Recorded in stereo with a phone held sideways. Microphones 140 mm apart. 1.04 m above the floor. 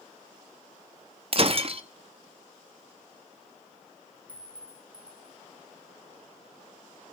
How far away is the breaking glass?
About 0.7 m.